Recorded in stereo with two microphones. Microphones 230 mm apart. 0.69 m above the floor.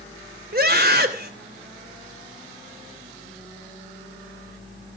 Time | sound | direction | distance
0.5 | a scream | 50° right (ahead or behind) | 3 m